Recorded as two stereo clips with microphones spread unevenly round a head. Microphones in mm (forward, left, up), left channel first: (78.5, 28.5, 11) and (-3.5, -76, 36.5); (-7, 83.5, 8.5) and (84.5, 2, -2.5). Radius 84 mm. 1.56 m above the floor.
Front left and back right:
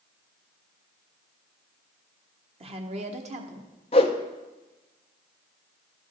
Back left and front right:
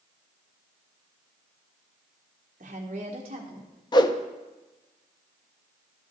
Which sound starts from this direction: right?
A woman speaking, at 2.6 s.